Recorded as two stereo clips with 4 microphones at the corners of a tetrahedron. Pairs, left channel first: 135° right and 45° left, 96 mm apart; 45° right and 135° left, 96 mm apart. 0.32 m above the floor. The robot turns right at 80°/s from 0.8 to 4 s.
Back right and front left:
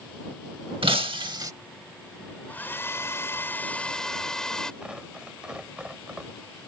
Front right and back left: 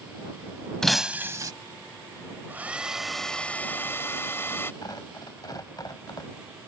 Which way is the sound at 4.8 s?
30° right.